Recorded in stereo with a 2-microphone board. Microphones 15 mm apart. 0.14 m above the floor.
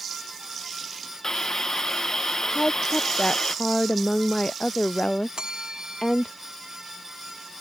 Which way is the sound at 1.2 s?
35° left (ahead or behind).